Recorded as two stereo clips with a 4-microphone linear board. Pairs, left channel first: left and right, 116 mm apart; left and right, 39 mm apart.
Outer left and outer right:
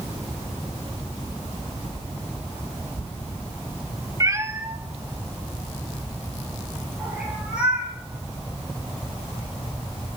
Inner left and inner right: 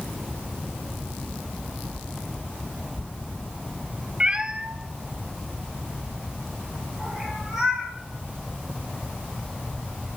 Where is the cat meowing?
30° right (ahead or behind), 0.9 m; by 7.9 s 10° right (ahead or behind), 5.5 m.